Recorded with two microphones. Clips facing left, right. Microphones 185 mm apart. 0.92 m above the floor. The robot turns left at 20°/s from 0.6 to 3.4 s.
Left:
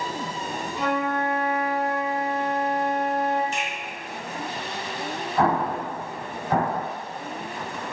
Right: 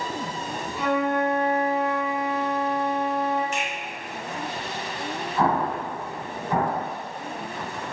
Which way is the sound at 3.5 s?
35° left (ahead or behind).